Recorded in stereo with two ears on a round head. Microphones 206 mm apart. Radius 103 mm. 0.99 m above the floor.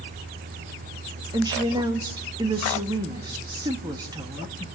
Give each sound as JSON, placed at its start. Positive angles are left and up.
{"t": 1.3, "sound": "a woman speaking", "side_deg": -20, "distance_m": 2.0}